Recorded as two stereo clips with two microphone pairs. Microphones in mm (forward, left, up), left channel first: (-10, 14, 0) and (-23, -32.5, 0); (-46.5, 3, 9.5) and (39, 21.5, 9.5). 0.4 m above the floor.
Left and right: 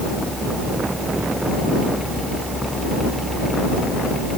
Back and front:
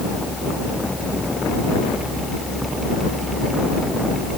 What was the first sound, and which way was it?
Only background noise.